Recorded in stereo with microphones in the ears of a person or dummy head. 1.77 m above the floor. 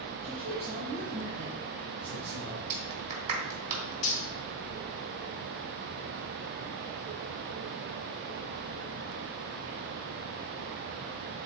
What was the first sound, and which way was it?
A man speaking, 35° right (ahead or behind).